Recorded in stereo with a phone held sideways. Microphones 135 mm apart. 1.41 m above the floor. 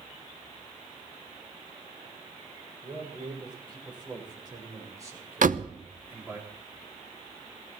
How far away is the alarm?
No alarm in this recording.